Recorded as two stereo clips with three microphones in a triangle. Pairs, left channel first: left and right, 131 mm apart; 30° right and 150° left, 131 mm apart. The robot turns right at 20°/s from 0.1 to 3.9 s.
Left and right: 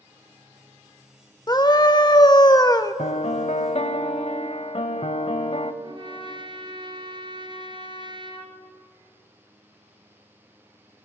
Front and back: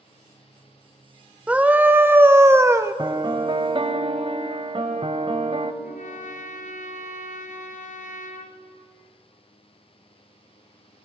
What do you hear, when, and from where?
1.5 s a scream: 80° left, 0.8 m; by 2.9 s 110° left, 0.8 m
3.0 s a piano: 95° left, 1.0 m; by 5.7 s 115° left, 1.0 m
5.8 s a trumpet: 40° right, 1.5 m